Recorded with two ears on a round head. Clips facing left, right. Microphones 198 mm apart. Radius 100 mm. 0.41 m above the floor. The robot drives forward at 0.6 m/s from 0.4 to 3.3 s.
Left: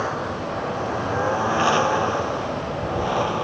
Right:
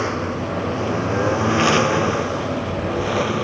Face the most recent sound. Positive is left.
turn(degrees=-30)  # may be behind; listen again after turning